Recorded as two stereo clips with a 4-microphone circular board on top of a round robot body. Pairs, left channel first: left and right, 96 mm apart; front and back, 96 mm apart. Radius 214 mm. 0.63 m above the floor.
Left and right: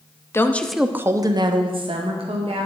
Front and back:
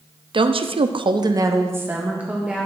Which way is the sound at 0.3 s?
155° left.